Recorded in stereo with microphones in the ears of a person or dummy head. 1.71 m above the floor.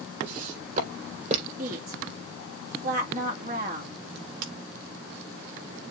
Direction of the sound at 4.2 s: 60° right (ahead or behind).